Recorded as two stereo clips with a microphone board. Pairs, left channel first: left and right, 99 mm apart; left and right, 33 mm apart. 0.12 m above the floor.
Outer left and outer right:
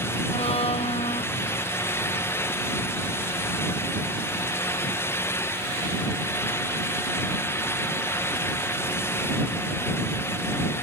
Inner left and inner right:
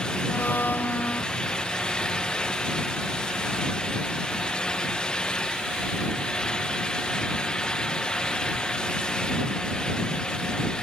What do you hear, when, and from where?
0.3 s a blender: 85° left